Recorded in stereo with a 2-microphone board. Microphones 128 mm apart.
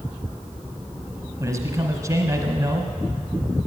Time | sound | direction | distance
1.4 | a man speaking | 25° right (ahead or behind) | 1.4 m